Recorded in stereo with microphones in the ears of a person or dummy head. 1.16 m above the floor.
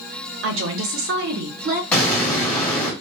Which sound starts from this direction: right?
A woman speaking, at 0.4 s.